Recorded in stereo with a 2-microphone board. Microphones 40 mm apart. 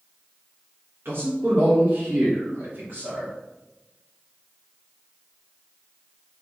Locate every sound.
1.1 s a man speaking: 85° right, 3.5 m; by 3.3 s 75° right (ahead or behind), 2.5 m